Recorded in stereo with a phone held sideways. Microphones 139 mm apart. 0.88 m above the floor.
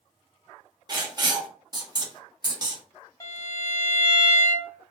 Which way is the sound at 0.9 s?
30° right (ahead or behind).